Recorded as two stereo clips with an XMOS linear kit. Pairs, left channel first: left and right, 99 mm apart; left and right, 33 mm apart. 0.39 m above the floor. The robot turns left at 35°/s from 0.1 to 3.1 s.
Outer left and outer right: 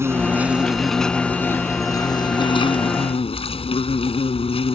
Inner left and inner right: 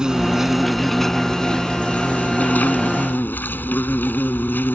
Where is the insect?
155° right; by 4.8 s 100° left.